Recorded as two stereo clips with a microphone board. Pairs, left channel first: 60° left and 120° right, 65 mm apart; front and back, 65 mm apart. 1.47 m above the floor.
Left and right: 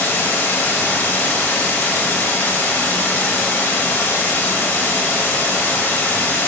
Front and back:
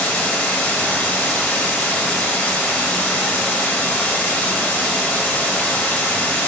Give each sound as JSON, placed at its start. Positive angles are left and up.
{"t": 0.0, "sound": "running water", "azimuth_deg": 35, "distance_m": 1.4}